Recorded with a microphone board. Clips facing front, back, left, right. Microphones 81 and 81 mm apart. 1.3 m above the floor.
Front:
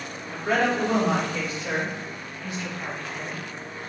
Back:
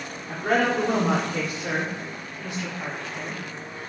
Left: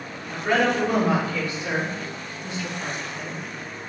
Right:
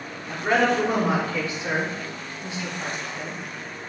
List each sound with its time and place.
0.3 s a woman speaking: 150° right, 4 m; by 3.4 s 160° right, 2.5 m